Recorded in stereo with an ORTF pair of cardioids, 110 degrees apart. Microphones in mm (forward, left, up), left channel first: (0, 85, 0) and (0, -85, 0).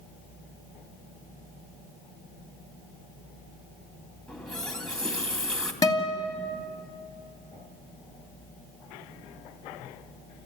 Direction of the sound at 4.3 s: 5° left.